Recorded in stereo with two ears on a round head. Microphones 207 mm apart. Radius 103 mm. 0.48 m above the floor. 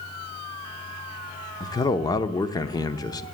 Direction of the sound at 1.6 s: 20° left (ahead or behind).